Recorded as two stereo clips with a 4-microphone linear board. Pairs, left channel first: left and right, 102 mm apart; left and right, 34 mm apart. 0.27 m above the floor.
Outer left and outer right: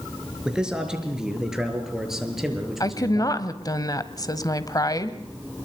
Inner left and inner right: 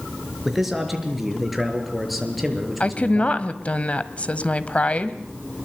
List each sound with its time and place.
0.5 s a man speaking: 5° right (ahead or behind), 4.5 m; by 3.4 s centre (ahead or behind), 6 m
2.8 s a woman speaking: 35° left (ahead or behind), 1.4 m